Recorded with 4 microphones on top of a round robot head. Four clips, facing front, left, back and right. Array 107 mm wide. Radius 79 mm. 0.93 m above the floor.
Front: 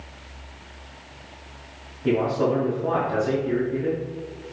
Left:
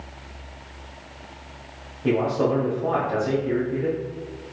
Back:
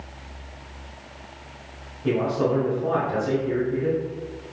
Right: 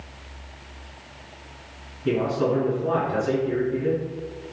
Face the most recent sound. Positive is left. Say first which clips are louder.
# left 1 dB, front 1 dB
turn(degrees=85)